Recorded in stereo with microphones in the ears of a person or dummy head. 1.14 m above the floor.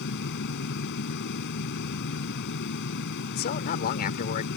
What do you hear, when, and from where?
0.0 s a fan: 60° left (ahead or behind)
3.3 s a man speaking: 45° left (ahead or behind)